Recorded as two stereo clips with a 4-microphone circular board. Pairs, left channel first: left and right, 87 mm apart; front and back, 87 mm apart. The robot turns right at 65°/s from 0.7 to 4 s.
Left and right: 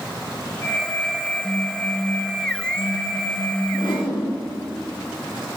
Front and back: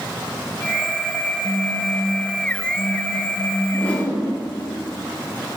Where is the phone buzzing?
125° left, 1.7 m; by 3.6 s 90° right, 1.7 m.